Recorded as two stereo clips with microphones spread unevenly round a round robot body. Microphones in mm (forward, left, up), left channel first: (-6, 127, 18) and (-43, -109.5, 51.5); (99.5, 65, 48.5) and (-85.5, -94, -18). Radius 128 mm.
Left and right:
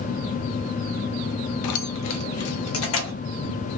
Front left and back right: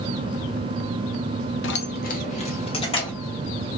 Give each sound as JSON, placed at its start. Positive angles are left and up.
{"t": 1.6, "sound": "keys jangling", "azimuth_deg": 85, "distance_m": 0.7}